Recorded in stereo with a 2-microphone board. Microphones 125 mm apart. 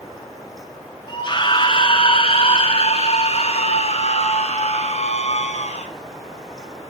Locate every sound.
1.1 s a scream: 35° left (ahead or behind), 1.9 m; by 5.9 s 65° left (ahead or behind), 4 m